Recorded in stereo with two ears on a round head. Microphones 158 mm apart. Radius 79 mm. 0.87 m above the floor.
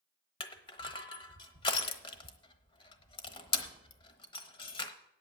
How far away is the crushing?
About 1.0 m.